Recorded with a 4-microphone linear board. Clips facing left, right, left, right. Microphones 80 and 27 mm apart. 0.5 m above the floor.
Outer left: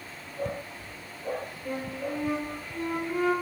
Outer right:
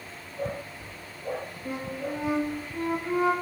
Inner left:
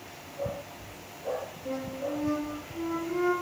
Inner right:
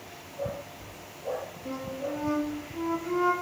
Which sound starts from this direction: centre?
A flute, at 1.6 s.